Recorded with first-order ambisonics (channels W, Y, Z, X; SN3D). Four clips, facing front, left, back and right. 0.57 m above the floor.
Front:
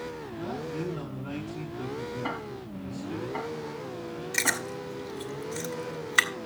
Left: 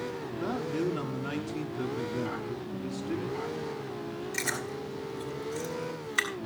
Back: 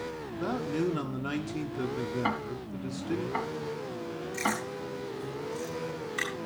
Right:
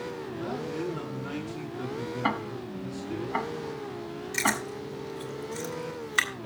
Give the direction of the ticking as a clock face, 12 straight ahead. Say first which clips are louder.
Right 5 dB, back 2 dB; 4 o'clock.